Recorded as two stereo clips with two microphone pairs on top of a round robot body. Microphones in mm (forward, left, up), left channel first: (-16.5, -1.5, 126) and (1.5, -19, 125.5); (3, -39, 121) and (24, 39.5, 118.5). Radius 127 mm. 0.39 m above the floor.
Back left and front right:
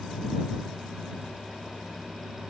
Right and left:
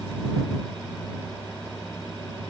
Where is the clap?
I don't hear a clap.